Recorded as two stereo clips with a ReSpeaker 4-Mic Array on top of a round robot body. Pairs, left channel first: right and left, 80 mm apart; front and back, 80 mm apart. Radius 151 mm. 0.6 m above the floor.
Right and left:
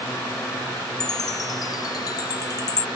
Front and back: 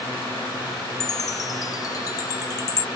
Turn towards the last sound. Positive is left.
turn(degrees=-45)